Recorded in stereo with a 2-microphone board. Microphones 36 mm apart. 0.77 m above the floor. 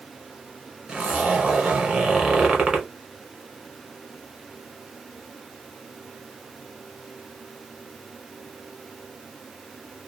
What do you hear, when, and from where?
0.9 s a zipper: 25° right (ahead or behind), 1.2 m